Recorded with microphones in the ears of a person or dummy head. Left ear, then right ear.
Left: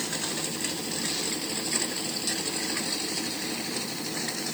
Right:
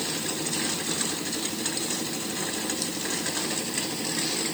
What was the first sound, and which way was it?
Only background noise.